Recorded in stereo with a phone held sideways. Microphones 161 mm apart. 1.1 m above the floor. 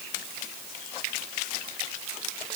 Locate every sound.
Only background noise.